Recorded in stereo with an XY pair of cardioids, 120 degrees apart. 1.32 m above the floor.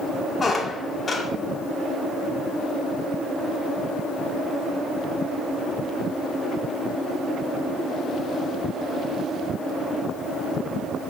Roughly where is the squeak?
Ahead left.